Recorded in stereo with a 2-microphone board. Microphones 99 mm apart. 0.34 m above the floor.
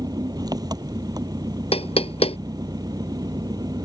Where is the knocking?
80° left.